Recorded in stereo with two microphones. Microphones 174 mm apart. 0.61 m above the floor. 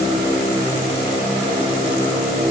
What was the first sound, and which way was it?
Only background noise.